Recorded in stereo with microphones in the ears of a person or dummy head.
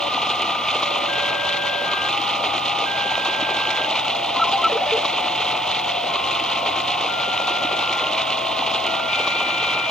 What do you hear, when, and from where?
0.0 s running water: 5° left (ahead or behind)
4.4 s a ringtone: centre (ahead or behind)